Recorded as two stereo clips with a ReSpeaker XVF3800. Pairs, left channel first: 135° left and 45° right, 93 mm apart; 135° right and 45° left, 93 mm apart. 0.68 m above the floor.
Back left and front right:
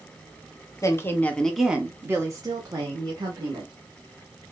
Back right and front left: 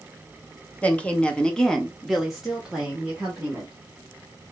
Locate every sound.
0.8 s a woman speaking: 160° left, 0.8 m; by 3.7 s 35° right, 1.4 m